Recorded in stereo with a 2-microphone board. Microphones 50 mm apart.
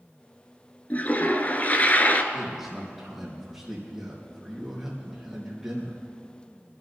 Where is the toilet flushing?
35° left (ahead or behind), 1.0 m.